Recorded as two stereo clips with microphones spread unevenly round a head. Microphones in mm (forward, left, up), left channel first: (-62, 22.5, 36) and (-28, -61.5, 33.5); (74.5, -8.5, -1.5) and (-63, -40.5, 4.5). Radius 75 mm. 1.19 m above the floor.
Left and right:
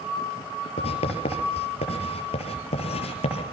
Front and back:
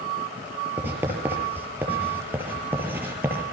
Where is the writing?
115° left, 6.5 m.